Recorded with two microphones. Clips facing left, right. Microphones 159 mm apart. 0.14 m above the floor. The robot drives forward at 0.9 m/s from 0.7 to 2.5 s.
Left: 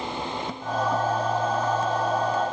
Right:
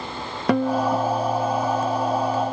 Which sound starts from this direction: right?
A guitar, at 0.5 s.